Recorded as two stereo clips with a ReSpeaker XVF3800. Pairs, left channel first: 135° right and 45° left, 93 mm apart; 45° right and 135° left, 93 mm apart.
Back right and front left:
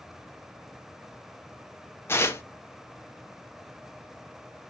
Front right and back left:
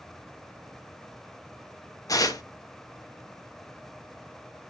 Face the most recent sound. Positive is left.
turn(degrees=-80)